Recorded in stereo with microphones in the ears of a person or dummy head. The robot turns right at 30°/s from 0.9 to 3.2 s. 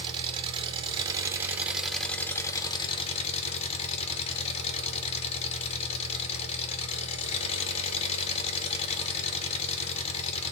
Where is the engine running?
30° right, 0.8 m; by 10.5 s 40° left, 0.8 m.